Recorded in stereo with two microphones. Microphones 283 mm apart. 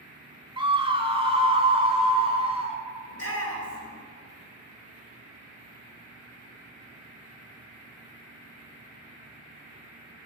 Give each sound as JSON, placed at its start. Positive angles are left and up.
{"t": 0.6, "sound": "a scream", "side_deg": -15, "distance_m": 1.3}
{"t": 3.1, "sound": "a shout", "side_deg": 60, "distance_m": 3.0}